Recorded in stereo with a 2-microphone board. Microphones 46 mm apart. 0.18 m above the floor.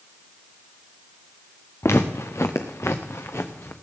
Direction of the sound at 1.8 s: 75° left (ahead or behind).